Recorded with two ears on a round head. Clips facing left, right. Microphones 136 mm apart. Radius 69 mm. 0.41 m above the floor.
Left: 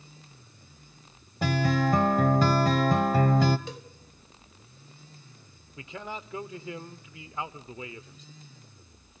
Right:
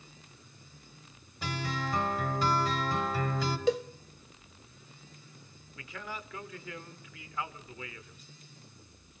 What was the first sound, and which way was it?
A guitar, 40° left (ahead or behind).